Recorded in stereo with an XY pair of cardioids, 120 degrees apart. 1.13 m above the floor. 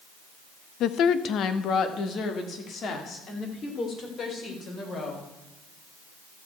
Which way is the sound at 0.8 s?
65° left.